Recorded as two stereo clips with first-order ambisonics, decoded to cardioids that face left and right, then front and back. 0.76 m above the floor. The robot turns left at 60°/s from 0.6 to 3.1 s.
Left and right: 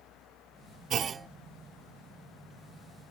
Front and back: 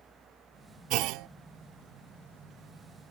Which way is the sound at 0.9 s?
145° right.